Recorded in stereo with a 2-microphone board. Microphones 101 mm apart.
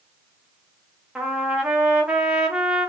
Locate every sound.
1.1 s a trumpet: 10° right (ahead or behind), 0.9 m